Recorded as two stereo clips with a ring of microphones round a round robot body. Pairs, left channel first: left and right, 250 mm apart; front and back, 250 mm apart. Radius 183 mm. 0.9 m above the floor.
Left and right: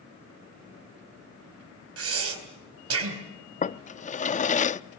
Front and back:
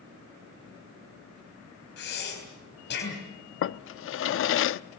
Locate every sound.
2.0 s breathing: 60° right, 4 m
3.6 s a drawer: 30° left, 0.5 m